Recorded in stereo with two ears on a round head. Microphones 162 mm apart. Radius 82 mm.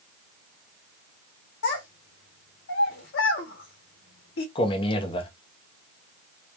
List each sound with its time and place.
1.6 s a child speaking: 65° left (ahead or behind), 0.6 m
4.5 s a man speaking: 30° left (ahead or behind), 0.6 m